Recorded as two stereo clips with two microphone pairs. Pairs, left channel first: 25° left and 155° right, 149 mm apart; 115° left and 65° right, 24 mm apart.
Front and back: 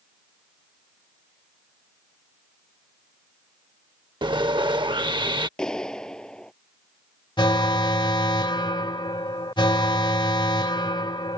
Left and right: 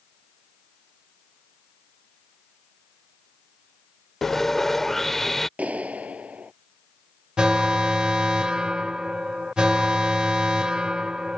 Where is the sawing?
Straight behind.